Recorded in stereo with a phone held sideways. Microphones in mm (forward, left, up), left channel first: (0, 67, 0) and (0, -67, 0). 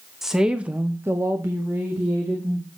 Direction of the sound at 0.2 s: Centre (ahead or behind).